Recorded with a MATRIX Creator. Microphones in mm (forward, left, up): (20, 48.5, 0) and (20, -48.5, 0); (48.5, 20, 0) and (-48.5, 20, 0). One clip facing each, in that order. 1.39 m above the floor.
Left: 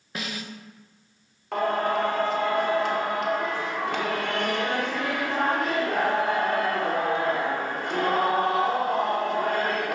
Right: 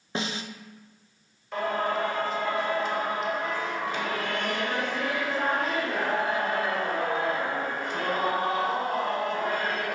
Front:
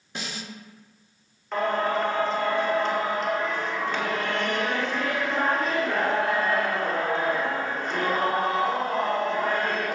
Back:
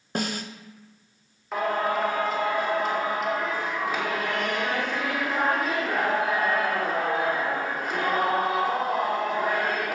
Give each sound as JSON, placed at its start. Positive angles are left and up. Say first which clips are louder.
{"t": 0.1, "sound": "a snare drum", "louder": "right 3 dB, back 7 dB", "azimuth_deg": -150, "distance_m": 0.7}
{"t": 1.5, "sound": "singing", "louder": "left 3 dB, front 1 dB", "azimuth_deg": 95, "distance_m": 1.9}